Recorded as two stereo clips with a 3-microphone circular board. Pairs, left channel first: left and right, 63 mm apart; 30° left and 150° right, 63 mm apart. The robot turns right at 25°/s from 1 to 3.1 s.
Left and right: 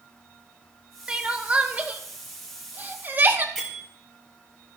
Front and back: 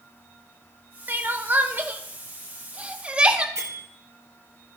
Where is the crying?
150° right, 0.8 m; by 3.5 s 100° right, 0.8 m.